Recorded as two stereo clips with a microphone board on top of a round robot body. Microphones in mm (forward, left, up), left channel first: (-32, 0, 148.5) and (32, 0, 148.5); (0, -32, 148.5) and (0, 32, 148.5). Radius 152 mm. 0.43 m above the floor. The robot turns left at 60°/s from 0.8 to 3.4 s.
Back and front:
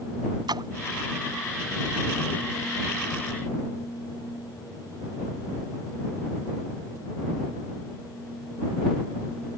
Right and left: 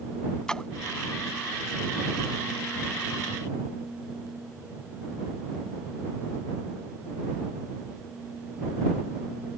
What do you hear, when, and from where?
0.5 s a splash: 10° right